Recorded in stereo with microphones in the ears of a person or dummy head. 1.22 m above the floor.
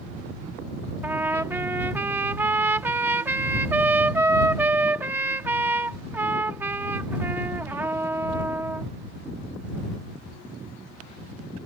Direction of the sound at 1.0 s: 15° right (ahead or behind).